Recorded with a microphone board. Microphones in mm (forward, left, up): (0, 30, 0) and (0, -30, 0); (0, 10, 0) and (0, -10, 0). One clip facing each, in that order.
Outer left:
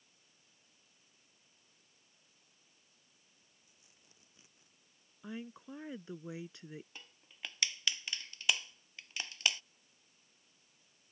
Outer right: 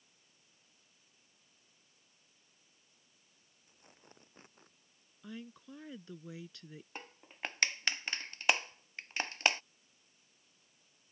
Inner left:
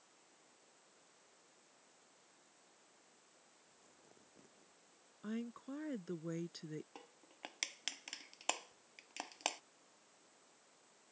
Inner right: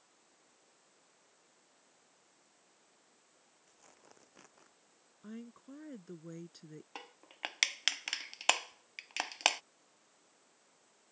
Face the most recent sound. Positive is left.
turn(degrees=-45)  # may be behind; listen again after turning